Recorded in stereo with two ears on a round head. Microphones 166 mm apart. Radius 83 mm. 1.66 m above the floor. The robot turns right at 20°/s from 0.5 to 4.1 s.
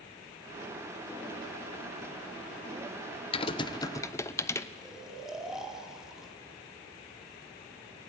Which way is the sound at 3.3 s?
30° left (ahead or behind).